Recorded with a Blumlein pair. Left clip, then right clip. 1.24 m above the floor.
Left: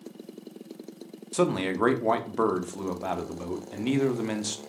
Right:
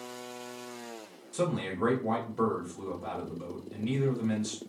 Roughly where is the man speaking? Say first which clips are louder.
Left 6 dB; ahead left.